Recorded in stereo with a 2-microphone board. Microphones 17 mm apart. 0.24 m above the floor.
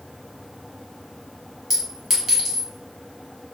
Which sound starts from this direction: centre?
A clink, at 1.7 s.